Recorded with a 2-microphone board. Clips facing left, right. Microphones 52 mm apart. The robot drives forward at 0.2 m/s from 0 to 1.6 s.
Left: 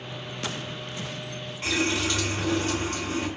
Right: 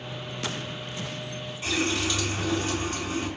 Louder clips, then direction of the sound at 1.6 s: Left 1 dB; 55° left (ahead or behind).